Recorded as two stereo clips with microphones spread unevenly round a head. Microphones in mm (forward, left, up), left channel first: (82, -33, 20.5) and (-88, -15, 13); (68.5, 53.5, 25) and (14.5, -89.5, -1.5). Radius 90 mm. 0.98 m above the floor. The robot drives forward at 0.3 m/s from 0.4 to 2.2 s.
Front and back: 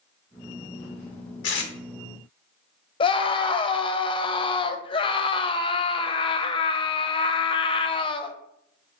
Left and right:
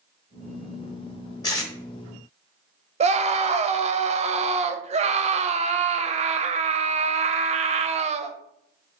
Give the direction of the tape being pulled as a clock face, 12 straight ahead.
12 o'clock.